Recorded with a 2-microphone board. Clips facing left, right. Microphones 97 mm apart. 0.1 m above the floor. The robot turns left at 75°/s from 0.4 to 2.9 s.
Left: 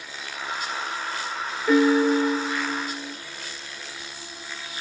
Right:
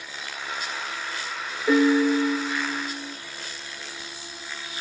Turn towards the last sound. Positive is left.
turn(degrees=110)